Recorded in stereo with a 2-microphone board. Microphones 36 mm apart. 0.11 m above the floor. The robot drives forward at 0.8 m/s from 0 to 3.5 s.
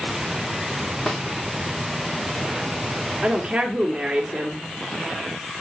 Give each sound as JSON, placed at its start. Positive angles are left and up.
{"t": 1.1, "sound": "a snare drum", "side_deg": 15, "distance_m": 1.9}
{"t": 3.2, "sound": "a woman speaking", "side_deg": -20, "distance_m": 1.7}